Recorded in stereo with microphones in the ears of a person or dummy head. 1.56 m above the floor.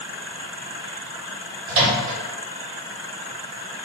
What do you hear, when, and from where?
1.7 s a microwave: 55° right (ahead or behind), 1.2 m